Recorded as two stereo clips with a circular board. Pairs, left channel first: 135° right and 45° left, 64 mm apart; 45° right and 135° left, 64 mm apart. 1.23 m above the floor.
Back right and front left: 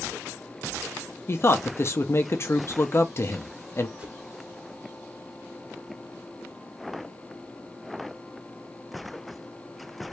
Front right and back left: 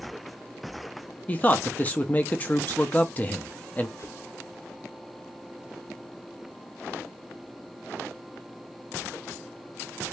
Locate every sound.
1.3 s a man speaking: 100° right, 0.8 m
4.0 s a whoosh: 25° right, 2.5 m